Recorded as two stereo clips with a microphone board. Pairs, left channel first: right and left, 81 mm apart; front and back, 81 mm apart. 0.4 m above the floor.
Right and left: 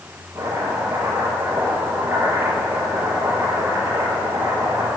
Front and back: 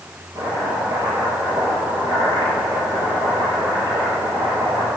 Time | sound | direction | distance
0.3 | chopping | 145° left | 5.5 m